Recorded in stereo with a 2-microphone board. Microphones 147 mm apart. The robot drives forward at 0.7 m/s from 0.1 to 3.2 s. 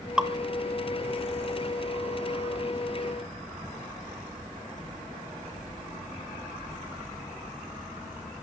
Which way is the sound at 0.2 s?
5° right (ahead or behind).